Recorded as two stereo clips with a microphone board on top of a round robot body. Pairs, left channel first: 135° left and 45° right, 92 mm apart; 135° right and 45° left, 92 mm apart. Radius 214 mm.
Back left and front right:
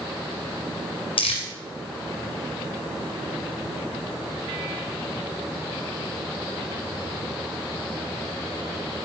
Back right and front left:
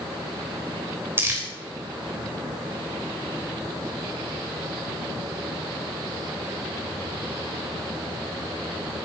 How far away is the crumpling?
About 3 m.